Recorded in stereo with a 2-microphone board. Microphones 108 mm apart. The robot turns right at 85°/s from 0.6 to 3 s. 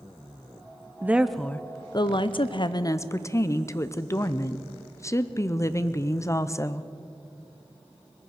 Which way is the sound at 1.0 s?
25° right.